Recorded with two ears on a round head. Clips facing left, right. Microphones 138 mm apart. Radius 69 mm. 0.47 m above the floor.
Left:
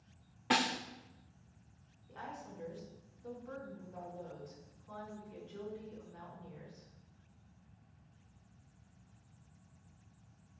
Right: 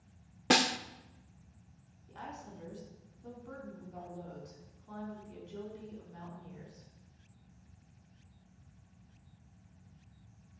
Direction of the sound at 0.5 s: 50° right (ahead or behind).